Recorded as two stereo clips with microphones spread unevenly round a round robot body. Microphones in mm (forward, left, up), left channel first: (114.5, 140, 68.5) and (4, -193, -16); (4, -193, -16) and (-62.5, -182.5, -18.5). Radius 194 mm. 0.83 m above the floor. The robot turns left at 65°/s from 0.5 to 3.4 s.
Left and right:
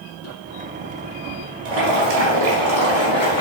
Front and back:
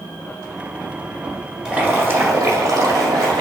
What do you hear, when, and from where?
1.6 s boiling: 110° right, 1.3 m; by 3.4 s 135° left, 1.3 m